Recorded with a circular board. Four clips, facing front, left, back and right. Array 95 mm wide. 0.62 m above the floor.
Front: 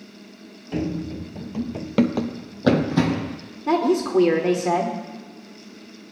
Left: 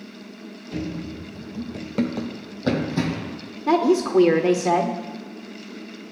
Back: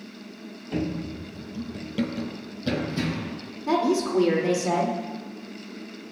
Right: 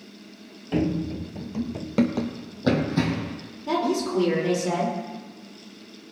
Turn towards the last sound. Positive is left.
turn(degrees=65)